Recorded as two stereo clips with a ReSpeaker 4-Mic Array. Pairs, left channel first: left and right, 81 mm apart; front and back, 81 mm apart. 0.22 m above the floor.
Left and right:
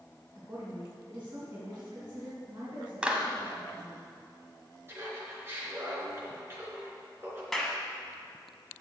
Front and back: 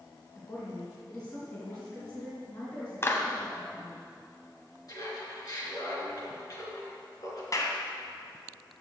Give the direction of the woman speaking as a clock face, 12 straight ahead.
1 o'clock.